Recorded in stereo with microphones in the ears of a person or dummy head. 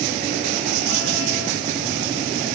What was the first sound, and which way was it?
Only background noise.